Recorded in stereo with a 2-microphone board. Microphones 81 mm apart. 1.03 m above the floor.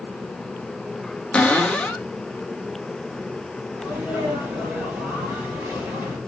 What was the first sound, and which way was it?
A cupboard door, 15° left (ahead or behind).